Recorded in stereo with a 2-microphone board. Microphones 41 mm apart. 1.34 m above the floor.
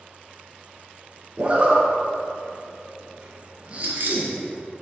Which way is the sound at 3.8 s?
50° right (ahead or behind).